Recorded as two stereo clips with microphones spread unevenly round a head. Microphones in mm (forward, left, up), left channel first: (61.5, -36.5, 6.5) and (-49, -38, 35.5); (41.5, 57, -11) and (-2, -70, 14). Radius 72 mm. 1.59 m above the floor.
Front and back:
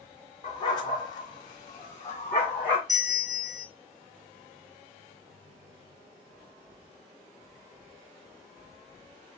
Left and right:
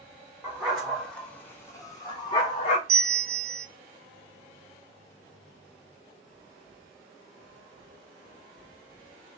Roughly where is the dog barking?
Ahead right.